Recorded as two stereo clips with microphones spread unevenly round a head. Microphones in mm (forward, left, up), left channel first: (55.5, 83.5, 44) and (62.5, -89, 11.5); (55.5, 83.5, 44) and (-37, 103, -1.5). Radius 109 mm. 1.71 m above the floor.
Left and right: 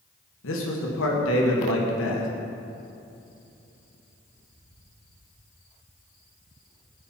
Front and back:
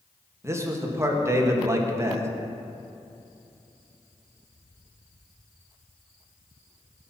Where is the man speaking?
105° left, 1.7 m.